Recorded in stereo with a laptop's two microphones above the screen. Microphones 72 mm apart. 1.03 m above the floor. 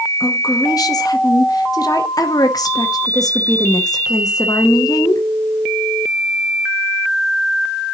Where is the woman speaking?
55° left (ahead or behind), 0.9 m.